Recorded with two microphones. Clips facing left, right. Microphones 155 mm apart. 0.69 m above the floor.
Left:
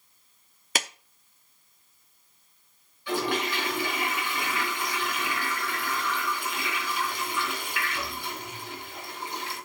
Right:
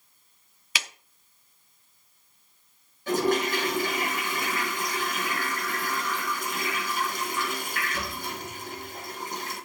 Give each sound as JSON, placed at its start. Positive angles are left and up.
{"t": 0.8, "sound": "a clap", "side_deg": 45, "distance_m": 0.6}
{"t": 3.1, "sound": "a toilet flushing", "side_deg": -45, "distance_m": 3.5}